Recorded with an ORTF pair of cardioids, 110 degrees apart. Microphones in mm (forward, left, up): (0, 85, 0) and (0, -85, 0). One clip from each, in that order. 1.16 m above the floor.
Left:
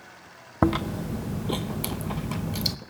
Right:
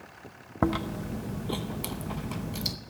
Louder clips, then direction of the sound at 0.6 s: Left 4 dB; 20° left.